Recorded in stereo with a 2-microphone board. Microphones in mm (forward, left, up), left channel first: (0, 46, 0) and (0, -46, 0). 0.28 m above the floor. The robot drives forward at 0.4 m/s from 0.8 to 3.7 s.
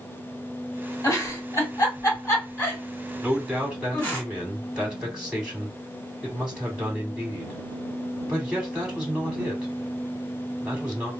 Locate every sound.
1.0 s a giggle: 35° left (ahead or behind), 2 m; by 4.2 s 25° left (ahead or behind), 3 m
3.2 s a man speaking: 10° right (ahead or behind), 1.6 m